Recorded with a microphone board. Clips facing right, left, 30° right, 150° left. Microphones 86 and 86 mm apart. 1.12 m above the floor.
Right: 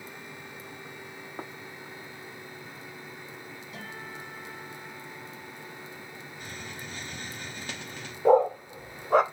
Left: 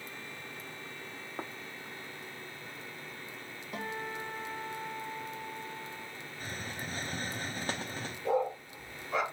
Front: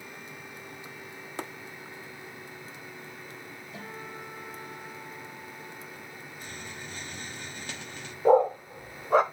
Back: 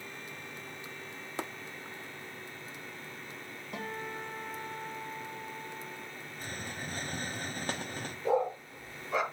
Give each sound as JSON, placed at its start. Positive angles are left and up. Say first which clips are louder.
{"t": 3.7, "sound": "a guitar", "louder": "left 6 dB, back 4 dB", "azimuth_deg": 130, "distance_m": 4.0}
{"t": 6.4, "sound": "a hiss", "louder": "left 2 dB, back 3 dB", "azimuth_deg": 125, "distance_m": 0.7}
{"t": 8.2, "sound": "a dog barking", "louder": "right 10 dB, front 9 dB", "azimuth_deg": -65, "distance_m": 1.3}